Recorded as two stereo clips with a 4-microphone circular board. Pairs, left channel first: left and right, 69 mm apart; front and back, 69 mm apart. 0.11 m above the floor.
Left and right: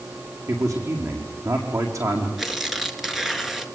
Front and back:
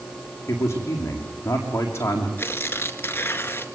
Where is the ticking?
No ticking in this recording.